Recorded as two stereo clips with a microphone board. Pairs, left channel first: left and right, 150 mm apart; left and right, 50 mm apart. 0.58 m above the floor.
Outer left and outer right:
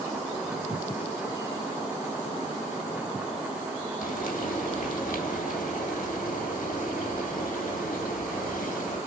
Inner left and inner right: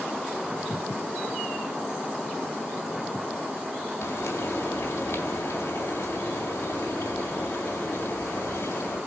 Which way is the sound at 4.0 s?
75° left (ahead or behind).